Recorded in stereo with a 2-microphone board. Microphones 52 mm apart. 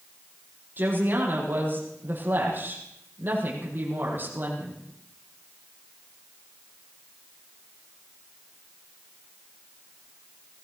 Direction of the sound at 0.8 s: 40° right (ahead or behind).